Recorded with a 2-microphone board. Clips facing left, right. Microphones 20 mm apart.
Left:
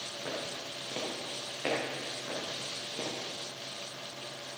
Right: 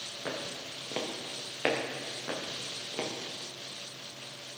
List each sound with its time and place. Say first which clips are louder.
0.2 s footsteps: right 1 dB; 20° right (ahead or behind), 3.5 m; by 3.1 s 45° right (ahead or behind), 5 m